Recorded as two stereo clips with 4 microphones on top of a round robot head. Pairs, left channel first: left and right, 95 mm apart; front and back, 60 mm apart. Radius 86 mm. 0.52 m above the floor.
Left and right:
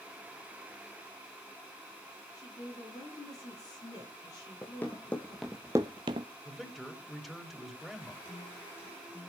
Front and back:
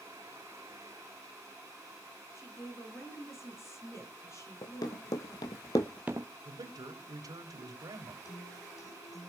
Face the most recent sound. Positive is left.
turn(degrees=20)